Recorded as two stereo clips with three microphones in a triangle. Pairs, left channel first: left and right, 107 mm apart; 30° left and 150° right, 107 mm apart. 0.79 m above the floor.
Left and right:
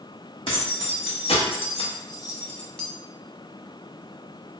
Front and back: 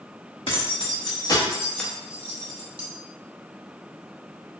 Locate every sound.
0.5 s keys jangling: 60° left, 1.2 m; by 2.9 s 175° left, 0.8 m